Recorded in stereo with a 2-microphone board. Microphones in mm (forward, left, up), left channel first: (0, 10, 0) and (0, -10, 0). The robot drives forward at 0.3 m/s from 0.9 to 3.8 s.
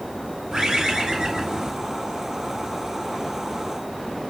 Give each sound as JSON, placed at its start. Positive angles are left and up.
{"t": 0.5, "sound": "a bird", "side_deg": -55, "distance_m": 1.5}